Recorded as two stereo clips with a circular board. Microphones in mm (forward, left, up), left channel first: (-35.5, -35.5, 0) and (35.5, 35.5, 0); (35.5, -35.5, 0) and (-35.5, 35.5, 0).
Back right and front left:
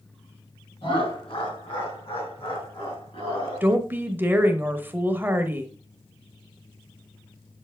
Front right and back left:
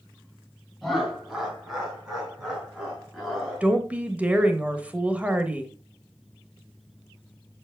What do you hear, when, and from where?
0.8 s laughter: 135° right, 3 m; by 3.7 s 140° right, 5 m
3.6 s a woman speaking: 80° left, 1.0 m